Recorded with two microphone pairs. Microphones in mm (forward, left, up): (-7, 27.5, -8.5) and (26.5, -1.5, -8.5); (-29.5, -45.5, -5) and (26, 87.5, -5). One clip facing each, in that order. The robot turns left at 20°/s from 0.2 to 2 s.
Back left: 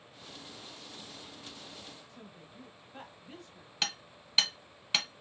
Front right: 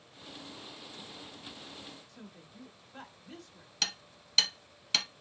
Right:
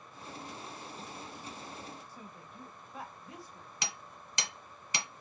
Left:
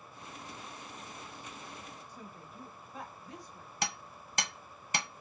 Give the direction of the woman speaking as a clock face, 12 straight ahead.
6 o'clock.